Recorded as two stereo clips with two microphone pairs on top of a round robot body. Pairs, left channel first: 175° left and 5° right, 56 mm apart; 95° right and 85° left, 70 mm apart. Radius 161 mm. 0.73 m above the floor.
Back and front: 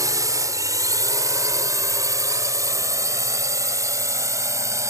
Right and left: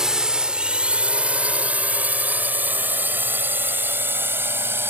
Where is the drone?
Straight ahead; by 4.9 s 25° left.